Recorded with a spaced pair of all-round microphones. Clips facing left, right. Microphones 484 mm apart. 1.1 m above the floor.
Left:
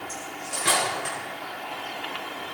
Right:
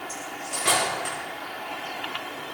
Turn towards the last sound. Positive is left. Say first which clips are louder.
# even
turn(degrees=5)  # may be behind; listen again after turning